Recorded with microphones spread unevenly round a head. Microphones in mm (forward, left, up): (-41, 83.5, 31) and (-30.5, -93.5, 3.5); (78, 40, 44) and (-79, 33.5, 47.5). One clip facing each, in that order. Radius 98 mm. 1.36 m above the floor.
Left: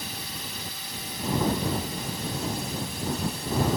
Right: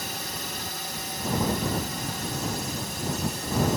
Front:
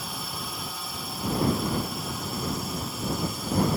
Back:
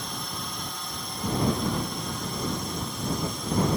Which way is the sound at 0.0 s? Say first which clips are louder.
Right 3 dB, even; 85° right.